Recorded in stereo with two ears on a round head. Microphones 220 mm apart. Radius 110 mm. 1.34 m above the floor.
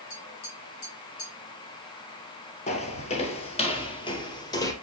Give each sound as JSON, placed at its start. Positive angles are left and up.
{"t": 0.1, "sound": "tapping", "side_deg": 65, "distance_m": 6.0}
{"t": 2.7, "sound": "footsteps", "side_deg": 30, "distance_m": 1.5}